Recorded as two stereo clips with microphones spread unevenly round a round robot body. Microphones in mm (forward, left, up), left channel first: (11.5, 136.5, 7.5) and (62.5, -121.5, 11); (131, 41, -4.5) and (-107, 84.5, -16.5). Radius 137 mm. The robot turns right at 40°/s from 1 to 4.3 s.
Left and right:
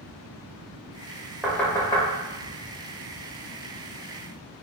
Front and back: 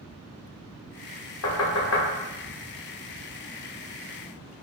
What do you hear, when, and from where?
1.4 s knocking: 10° left, 1.0 m; by 2.0 s 35° left, 1.0 m